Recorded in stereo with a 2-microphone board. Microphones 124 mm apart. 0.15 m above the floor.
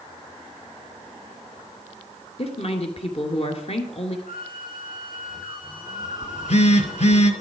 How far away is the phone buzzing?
About 1.5 m.